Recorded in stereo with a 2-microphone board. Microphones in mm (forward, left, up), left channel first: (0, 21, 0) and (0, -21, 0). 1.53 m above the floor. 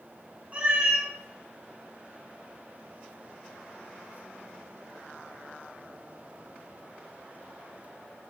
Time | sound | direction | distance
0.5 | a cat meowing | 30° right (ahead or behind) | 0.8 m